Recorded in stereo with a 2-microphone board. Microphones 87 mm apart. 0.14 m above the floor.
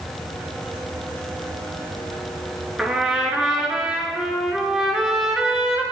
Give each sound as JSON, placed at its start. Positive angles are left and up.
{"t": 2.8, "sound": "a trumpet", "side_deg": -10, "distance_m": 2.0}